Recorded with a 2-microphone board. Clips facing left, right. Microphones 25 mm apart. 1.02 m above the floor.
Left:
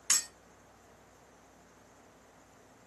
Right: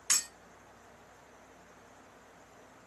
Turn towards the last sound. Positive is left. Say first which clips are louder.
# even
turn(degrees=5)  # may be behind; listen again after turning